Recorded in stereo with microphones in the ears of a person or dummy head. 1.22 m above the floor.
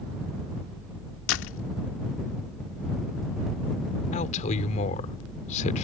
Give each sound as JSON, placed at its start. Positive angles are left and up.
{"t": 1.3, "sound": "a door slam", "side_deg": 75}
{"t": 4.1, "sound": "a man speaking", "side_deg": 45}